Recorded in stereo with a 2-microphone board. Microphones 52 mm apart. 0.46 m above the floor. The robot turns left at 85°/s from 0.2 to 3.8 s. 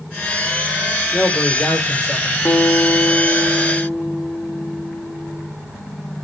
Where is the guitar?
140° left, 0.8 m; by 5.5 s 25° left, 0.8 m.